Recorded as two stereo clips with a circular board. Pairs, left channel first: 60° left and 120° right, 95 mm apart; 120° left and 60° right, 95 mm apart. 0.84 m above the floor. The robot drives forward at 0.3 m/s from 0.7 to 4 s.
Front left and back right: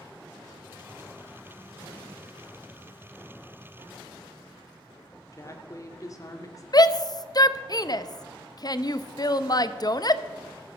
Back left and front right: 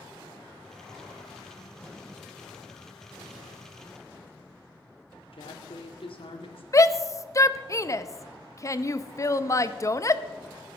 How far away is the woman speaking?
About 2 m.